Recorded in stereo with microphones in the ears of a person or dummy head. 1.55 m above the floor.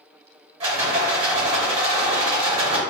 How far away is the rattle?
About 1.0 m.